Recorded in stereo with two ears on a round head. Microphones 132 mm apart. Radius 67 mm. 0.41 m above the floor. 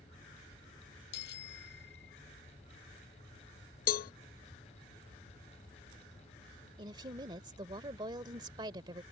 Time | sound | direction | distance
1.1 | a bicycle bell | 85° left | ?
3.9 | a cowbell | 65° left (ahead or behind) | ?
6.8 | a woman speaking | 30° right (ahead or behind) | ?